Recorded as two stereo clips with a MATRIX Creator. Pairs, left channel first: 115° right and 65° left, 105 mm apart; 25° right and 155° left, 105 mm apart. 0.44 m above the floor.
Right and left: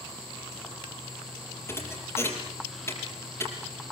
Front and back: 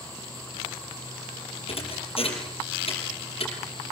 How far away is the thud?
About 6 m.